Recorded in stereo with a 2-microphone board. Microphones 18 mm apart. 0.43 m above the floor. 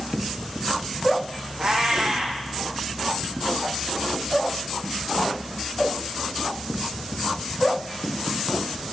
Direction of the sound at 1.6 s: 55° right (ahead or behind).